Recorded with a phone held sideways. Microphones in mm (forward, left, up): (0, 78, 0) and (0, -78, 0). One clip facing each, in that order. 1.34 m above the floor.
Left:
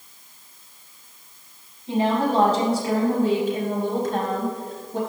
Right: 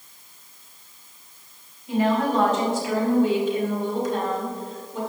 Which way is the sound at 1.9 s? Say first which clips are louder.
Even; 30° left (ahead or behind).